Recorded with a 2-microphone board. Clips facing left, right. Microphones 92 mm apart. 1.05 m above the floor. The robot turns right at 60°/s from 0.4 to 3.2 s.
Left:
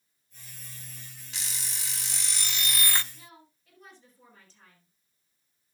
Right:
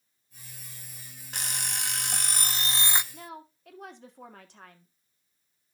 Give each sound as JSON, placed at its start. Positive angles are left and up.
{"t": 1.3, "sound": "an alarm clock", "azimuth_deg": -120, "distance_m": 0.6}
{"t": 3.1, "sound": "a woman speaking", "side_deg": -60, "distance_m": 1.7}